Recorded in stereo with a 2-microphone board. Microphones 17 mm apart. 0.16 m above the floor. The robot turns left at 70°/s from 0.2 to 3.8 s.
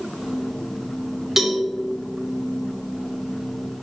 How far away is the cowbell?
About 1.6 m.